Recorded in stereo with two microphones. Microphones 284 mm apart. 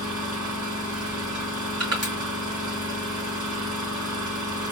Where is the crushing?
55° right (ahead or behind), 2 m.